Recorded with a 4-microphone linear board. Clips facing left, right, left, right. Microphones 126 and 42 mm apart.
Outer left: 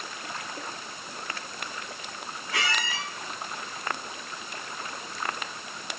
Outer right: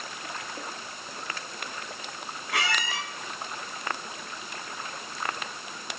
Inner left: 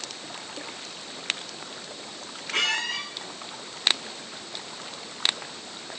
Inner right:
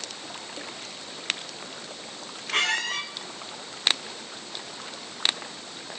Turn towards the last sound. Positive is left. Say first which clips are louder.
# outer right 1 dB, inner right 1 dB
turn(degrees=-75)  # may be behind; listen again after turning